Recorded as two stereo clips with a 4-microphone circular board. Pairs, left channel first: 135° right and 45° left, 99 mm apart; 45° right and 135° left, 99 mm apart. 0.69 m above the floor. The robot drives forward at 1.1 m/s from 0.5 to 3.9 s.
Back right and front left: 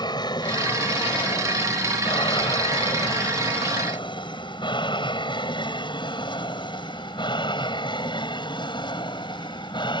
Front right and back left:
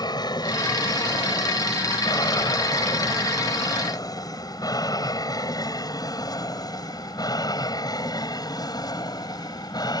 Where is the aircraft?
90° right; by 10.0 s 95° right.